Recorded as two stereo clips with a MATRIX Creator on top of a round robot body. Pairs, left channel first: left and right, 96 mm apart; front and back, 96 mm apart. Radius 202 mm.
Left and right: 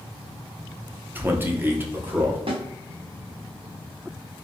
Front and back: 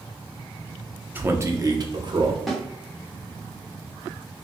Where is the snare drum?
90° right, 1.1 m.